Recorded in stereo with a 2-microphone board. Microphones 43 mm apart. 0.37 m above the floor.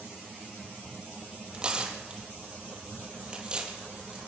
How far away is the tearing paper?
About 4 m.